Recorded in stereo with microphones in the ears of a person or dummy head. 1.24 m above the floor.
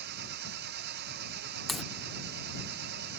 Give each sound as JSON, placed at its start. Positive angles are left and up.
{"t": 0.0, "sound": "an engine running", "side_deg": -60}
{"t": 1.7, "sound": "a crack", "side_deg": 0}